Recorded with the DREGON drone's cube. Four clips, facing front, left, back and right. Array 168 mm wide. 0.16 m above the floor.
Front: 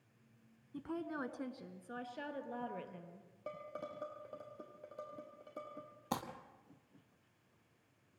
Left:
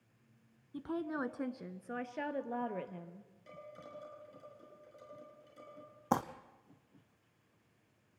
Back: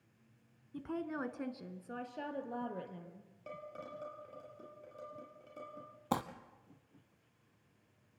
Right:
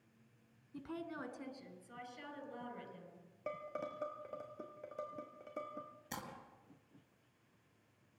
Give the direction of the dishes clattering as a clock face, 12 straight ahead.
2 o'clock.